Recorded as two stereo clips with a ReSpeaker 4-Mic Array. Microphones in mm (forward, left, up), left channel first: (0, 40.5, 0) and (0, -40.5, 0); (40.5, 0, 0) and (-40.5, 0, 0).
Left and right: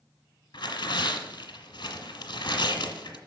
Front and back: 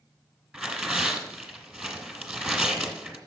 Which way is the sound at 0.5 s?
105° left.